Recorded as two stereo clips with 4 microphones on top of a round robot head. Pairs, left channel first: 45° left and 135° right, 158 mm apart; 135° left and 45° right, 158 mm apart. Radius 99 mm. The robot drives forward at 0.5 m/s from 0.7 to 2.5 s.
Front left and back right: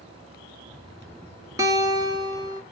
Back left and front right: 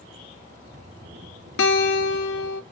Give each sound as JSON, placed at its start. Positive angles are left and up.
{"t": 1.6, "sound": "a guitar", "azimuth_deg": 150, "distance_m": 1.3}